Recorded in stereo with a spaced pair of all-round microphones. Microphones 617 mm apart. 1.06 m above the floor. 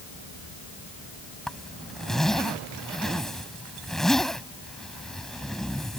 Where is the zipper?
Centre (ahead or behind).